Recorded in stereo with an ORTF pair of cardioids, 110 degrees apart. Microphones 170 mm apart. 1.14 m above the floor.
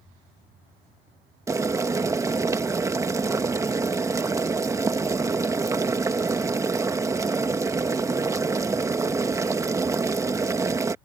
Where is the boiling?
20° right.